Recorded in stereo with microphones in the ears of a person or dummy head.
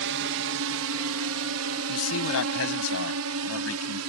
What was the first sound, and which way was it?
A drone, 70° right (ahead or behind).